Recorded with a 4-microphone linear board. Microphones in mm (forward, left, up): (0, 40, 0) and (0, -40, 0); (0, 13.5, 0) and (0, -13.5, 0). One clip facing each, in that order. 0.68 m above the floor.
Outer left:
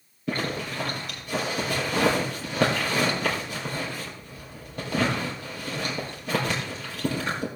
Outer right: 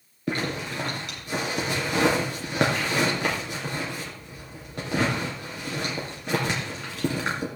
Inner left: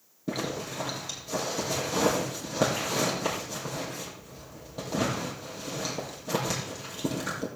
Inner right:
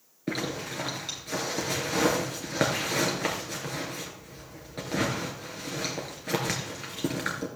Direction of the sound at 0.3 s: 85° right.